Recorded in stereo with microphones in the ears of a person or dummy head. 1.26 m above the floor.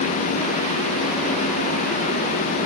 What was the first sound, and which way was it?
Only background noise.